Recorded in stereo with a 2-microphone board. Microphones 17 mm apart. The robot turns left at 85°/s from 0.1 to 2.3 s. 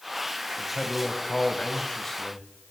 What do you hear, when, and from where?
0.6 s a man speaking: 160° left, 1.9 m; by 2.5 s 15° left, 1.9 m